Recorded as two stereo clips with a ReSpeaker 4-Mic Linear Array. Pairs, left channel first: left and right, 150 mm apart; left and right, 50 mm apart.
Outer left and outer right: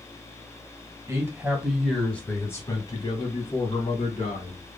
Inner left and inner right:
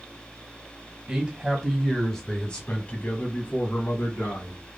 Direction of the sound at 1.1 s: 20° right (ahead or behind).